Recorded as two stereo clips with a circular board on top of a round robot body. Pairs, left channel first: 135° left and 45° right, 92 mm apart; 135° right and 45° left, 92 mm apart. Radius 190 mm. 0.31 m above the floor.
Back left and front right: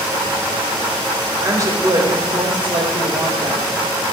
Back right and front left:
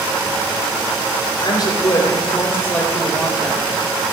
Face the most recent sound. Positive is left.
turn(degrees=-45)